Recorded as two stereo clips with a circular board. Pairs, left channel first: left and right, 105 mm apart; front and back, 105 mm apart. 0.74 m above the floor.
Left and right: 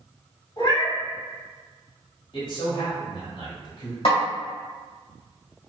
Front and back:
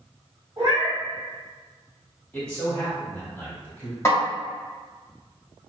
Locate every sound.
0.6 s a cat meowing: 130° left, 1.6 m
2.3 s a man speaking: 75° left, 2.0 m
4.0 s a snare drum: 70° left, 1.6 m